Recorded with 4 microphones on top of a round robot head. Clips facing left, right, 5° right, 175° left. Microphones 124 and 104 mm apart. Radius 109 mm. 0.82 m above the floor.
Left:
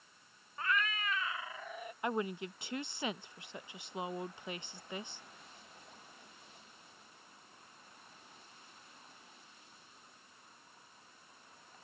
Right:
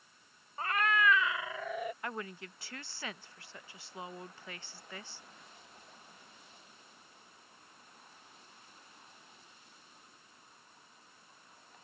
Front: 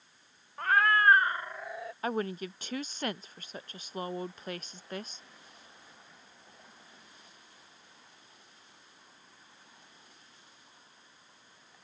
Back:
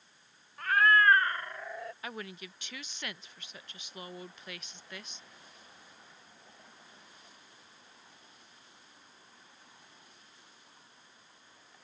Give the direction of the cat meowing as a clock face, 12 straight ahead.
1 o'clock.